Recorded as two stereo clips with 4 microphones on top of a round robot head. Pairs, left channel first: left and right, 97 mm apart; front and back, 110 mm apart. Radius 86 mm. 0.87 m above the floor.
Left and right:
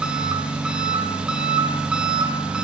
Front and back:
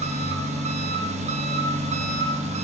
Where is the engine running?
170° right, 1.0 m.